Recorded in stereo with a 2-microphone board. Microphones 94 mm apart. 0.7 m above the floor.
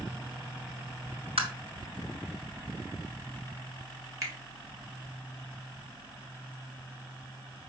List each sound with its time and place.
1.4 s tapping: 75° right (ahead or behind), 3 m
4.2 s a finger snap: 40° right (ahead or behind), 3 m